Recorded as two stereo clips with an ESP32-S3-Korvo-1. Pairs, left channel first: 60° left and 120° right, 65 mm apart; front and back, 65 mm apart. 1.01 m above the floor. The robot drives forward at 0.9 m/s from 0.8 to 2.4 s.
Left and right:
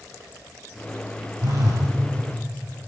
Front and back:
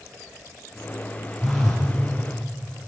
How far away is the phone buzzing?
About 6 m.